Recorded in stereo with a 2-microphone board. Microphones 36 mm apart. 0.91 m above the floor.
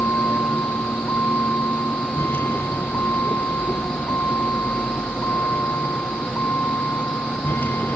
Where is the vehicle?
75° left (ahead or behind); by 8.0 s 60° left (ahead or behind).